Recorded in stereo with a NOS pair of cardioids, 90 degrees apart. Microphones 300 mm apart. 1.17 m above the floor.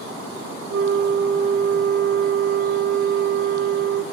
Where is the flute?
40° right, 0.7 m.